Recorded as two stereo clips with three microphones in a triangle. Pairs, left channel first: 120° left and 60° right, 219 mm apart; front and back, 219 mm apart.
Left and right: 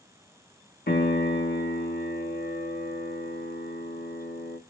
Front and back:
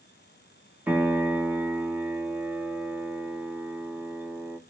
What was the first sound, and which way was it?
A piano, 100° left.